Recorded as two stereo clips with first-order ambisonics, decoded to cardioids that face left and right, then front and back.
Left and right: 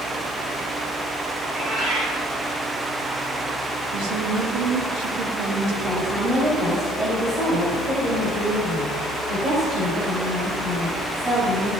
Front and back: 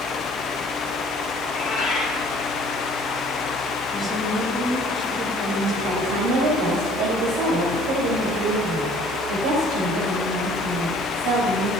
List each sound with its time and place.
1.4 s a cat meowing: 60° right, 3 m
3.9 s a woman speaking: 90° right, 1.9 m
5.8 s a woman speaking: 150° right, 2 m